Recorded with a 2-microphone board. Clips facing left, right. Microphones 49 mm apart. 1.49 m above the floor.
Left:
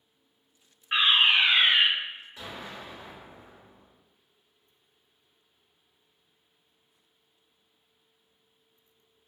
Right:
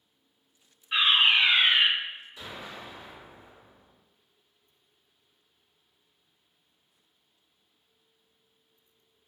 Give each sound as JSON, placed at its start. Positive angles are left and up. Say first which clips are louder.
{"t": 0.9, "sound": "a fire alarm", "louder": "even", "side_deg": 45, "distance_m": 0.8}
{"t": 2.4, "sound": "an explosion", "louder": "left 1 dB", "side_deg": 35, "distance_m": 1.8}